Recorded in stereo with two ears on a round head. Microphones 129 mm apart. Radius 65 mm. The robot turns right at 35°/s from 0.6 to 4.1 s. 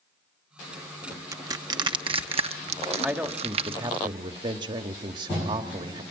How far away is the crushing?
About 1.1 m.